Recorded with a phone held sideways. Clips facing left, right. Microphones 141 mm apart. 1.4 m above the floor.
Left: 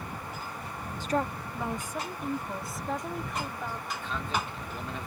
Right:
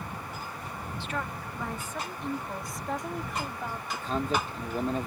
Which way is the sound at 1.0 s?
45° left (ahead or behind).